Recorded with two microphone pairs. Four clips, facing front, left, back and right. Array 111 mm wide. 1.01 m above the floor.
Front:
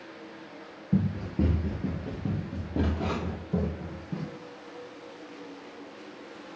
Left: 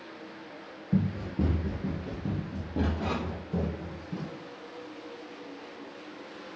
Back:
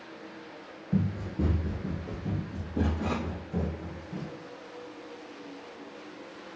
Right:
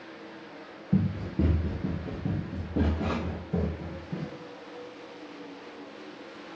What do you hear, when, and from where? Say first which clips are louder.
0.9 s running footsteps: right 1 dB, front 2 dB; 15° right, 1.0 m; by 4.3 s 5° right, 2.5 m